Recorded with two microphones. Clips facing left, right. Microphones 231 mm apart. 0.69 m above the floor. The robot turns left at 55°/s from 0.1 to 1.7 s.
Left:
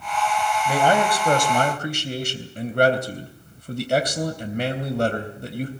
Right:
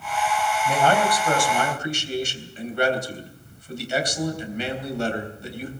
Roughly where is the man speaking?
Behind.